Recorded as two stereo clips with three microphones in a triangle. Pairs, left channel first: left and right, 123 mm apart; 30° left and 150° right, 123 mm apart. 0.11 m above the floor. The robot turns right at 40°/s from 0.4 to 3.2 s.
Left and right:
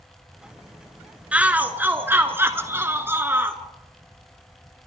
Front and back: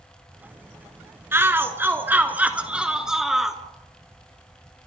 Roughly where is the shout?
Behind right.